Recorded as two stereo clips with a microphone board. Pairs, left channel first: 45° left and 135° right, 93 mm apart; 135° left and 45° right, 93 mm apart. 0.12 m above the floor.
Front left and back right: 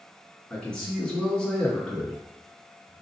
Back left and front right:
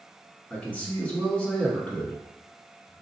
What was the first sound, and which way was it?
A man speaking, 100° left.